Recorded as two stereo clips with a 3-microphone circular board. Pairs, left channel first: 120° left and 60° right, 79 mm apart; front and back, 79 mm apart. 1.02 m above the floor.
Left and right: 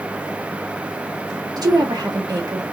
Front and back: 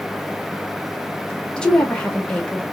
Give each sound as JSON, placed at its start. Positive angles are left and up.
{"t": 1.6, "sound": "a woman speaking", "azimuth_deg": -75, "distance_m": 1.4}